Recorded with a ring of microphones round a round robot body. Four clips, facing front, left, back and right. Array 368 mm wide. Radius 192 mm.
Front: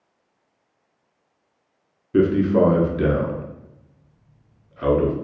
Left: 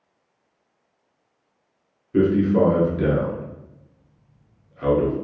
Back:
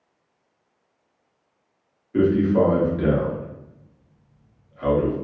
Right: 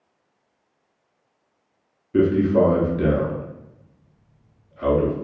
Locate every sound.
2.1 s a man speaking: straight ahead, 0.9 m